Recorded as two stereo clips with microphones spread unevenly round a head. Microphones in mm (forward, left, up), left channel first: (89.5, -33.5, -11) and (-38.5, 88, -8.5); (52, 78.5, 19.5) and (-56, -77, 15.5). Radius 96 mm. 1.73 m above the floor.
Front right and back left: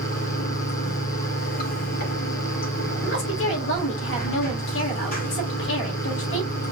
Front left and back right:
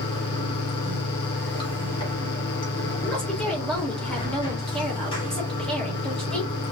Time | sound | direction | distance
0.0 | running water | 10° right | 3 m
3.0 | a woman speaking | 30° right | 2.5 m